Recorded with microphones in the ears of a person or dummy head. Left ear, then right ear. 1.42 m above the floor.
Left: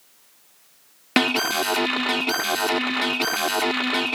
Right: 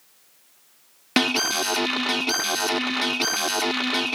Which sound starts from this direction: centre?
An alarm, at 1.2 s.